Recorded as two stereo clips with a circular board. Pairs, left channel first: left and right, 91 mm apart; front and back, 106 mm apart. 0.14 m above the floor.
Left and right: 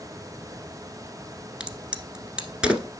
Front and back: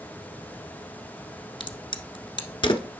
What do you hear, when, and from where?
1.6 s a crack: 10° right, 1.2 m